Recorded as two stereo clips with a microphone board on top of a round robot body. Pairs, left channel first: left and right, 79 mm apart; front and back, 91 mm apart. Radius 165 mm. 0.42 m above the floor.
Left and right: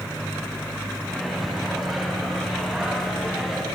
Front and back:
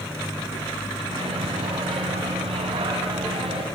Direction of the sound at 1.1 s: Straight behind.